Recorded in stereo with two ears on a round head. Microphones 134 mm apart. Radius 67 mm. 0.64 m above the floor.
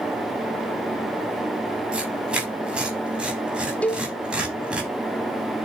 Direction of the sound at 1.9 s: 5° right (ahead or behind).